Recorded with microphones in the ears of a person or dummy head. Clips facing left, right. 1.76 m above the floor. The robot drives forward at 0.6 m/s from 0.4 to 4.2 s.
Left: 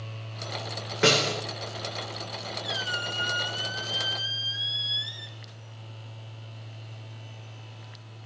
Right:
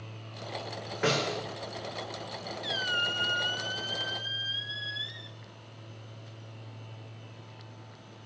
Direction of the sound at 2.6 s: 35° right (ahead or behind).